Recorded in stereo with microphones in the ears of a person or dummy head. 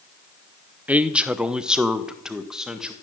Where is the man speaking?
5° right (ahead or behind), 0.7 m; by 2.9 s centre (ahead or behind), 1.8 m.